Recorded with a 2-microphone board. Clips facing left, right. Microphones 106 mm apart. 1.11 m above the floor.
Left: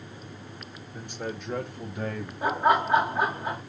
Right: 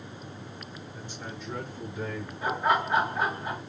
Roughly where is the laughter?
Left.